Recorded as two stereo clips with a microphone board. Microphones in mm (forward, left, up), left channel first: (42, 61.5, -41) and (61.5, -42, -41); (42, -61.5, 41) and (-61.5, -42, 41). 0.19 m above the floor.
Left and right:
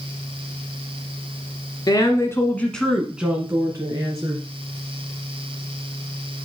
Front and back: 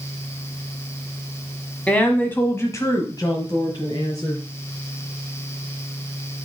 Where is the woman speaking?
65° left, 1.6 m; by 4.4 s 45° right, 1.9 m.